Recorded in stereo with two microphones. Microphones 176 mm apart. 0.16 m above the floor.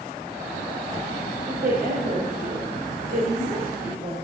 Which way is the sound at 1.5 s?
60° right (ahead or behind).